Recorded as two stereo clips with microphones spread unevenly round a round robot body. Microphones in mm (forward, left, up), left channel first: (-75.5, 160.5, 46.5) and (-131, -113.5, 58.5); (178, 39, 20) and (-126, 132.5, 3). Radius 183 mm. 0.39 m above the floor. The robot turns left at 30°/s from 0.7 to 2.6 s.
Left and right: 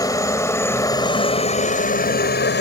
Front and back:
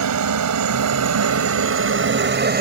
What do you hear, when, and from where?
0.0 s a helicopter: 155° left; by 2.6 s 115° left